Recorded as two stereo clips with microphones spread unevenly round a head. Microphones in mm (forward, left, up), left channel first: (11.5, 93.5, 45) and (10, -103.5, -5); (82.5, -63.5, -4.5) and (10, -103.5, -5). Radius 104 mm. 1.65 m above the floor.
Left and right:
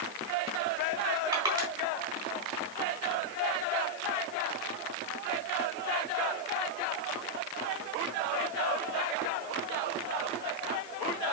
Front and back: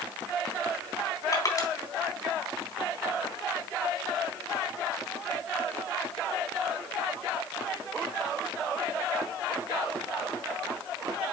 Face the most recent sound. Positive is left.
turn(degrees=-15)